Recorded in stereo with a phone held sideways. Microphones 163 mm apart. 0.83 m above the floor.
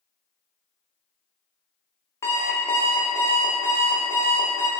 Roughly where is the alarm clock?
Centre.